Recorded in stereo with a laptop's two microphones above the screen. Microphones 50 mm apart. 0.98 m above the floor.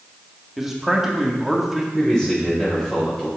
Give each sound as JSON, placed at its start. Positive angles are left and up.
{"t": 0.6, "sound": "a man speaking", "side_deg": -5, "distance_m": 2.5}
{"t": 1.9, "sound": "a man speaking", "side_deg": 15, "distance_m": 4.5}